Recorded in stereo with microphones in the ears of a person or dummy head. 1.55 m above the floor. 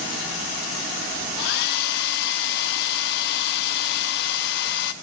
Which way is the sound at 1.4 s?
65° left (ahead or behind).